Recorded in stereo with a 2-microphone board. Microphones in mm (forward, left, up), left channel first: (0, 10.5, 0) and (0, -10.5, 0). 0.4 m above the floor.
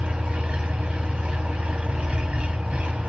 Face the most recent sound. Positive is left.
turn(degrees=-75)  # may be behind; listen again after turning